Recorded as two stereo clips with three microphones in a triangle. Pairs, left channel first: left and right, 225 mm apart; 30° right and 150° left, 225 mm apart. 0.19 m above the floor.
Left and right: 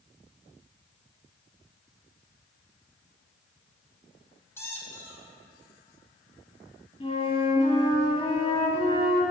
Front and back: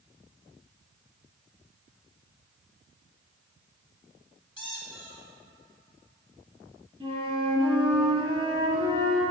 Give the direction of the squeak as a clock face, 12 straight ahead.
11 o'clock.